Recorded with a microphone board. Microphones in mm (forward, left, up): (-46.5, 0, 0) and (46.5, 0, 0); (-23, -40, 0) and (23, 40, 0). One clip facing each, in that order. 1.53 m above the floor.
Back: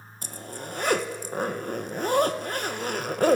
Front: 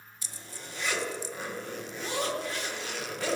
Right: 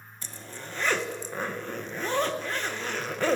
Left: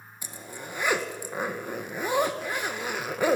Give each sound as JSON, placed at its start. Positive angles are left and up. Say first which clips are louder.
{"t": 0.2, "sound": "a zipper", "louder": "back 9 dB, left 2 dB", "azimuth_deg": 140, "distance_m": 1.6}